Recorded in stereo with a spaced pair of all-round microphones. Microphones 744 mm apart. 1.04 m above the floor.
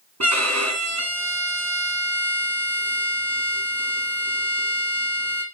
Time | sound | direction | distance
0.2 | a violin | 20° right (ahead or behind) | 2 m